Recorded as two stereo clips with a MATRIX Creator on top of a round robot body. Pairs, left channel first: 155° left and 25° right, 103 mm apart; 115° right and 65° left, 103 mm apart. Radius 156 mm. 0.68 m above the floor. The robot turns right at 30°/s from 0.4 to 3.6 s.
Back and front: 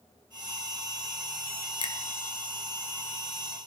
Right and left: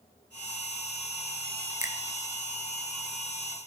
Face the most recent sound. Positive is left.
turn(degrees=180)